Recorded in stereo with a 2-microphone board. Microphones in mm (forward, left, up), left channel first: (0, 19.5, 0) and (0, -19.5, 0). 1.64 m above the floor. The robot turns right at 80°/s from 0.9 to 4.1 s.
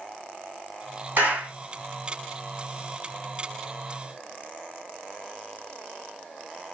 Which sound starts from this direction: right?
A clap, at 1.2 s.